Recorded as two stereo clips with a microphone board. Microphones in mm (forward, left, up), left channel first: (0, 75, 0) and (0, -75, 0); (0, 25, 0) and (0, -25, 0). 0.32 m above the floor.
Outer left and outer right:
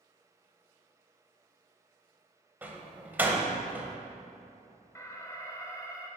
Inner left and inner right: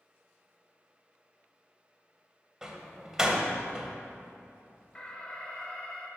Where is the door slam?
10° right (ahead or behind), 0.8 m.